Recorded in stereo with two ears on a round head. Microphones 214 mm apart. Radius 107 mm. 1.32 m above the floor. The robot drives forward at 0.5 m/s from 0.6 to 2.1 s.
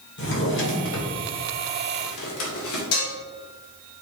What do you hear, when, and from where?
0.2 s a drawer: 50° left (ahead or behind), 2 m; by 2.8 s 65° left (ahead or behind), 1.8 m
2.9 s dishes clattering: 70° left (ahead or behind), 2.0 m